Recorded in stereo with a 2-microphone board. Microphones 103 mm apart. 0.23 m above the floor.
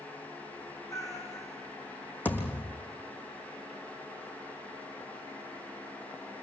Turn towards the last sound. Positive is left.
turn(degrees=15)  # may be behind; listen again after turning